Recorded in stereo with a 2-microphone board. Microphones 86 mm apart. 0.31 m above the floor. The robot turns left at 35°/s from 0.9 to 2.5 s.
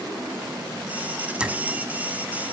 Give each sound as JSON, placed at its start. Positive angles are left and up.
{"t": 1.4, "sound": "a clink", "side_deg": -10, "distance_m": 1.7}